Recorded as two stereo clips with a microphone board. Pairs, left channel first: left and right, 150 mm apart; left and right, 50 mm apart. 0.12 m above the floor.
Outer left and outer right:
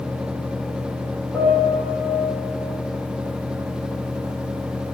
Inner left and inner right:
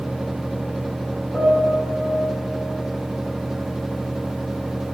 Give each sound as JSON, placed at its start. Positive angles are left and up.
{"t": 1.3, "sound": "a piano", "side_deg": -15, "distance_m": 2.5}